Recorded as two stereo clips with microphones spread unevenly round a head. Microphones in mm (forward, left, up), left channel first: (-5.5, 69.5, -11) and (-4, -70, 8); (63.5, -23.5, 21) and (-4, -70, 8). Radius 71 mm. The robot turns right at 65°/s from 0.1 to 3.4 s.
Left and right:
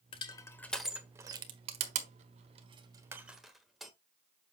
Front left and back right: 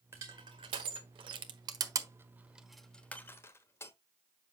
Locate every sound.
0.1 s crushing: 140° left, 1.3 m; by 3.9 s 5° right, 1.3 m